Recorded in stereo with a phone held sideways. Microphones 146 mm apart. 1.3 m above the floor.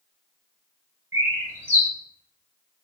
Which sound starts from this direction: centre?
A bird, at 1.1 s.